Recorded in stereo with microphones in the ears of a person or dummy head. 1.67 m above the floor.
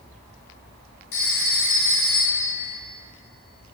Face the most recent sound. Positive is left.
turn(degrees=55)  # may be behind; listen again after turning